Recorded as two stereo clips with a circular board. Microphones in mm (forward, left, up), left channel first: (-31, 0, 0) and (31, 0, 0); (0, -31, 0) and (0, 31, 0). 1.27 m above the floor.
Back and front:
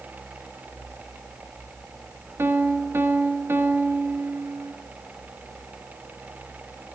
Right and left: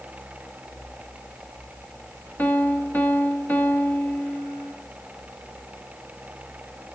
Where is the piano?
40° right, 0.9 m.